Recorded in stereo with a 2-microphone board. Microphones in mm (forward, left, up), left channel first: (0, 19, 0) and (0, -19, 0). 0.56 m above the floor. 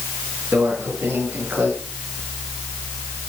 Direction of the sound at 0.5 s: 85° right.